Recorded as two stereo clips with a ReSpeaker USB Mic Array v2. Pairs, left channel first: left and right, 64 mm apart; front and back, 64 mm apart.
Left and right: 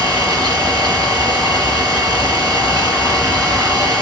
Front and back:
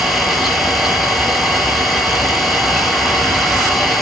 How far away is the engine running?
About 4 m.